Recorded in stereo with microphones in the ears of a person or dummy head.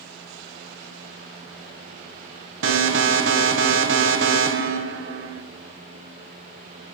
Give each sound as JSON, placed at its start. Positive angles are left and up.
{"t": 2.6, "sound": "an alarm", "side_deg": -60, "distance_m": 1.1}